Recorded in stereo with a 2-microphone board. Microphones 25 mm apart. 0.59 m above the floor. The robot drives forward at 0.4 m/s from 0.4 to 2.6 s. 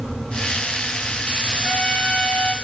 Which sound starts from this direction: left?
A trumpet, at 1.6 s.